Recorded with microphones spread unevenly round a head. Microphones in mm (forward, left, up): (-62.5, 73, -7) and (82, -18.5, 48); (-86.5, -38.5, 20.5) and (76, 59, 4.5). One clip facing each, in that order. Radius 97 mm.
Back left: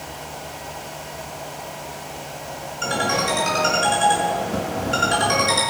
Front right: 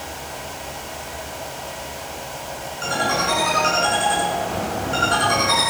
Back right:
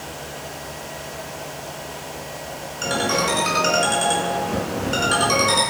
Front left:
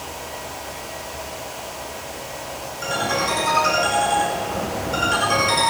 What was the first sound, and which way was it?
A ringtone, 150° right.